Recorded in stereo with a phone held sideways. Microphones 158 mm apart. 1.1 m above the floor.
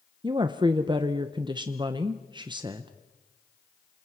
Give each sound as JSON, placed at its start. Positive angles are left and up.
{"t": 0.2, "sound": "a woman speaking", "side_deg": -30, "distance_m": 0.8}